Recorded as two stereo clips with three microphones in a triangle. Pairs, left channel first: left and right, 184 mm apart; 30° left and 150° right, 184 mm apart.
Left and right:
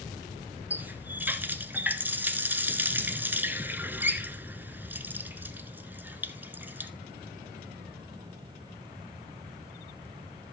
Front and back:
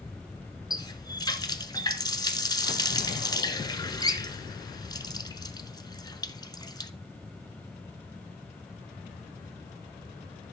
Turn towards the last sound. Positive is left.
turn(degrees=-20)